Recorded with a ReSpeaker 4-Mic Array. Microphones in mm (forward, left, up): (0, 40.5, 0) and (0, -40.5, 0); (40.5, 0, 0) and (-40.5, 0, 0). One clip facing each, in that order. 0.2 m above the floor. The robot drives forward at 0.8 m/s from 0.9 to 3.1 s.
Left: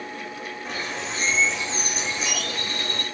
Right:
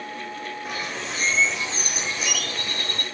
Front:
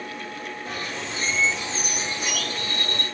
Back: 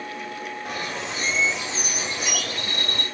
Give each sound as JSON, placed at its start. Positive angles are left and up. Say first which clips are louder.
{"t": 0.7, "sound": "a bird", "louder": "left 2 dB, back 2 dB", "azimuth_deg": -175, "distance_m": 7.0}